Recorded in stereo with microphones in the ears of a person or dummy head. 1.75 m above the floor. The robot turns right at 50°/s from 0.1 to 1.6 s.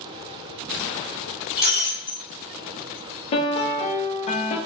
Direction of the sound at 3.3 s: 30° left (ahead or behind).